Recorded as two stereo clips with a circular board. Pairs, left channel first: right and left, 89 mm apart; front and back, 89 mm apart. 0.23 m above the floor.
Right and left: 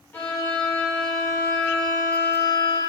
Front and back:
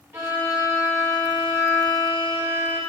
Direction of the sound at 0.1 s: 140° right.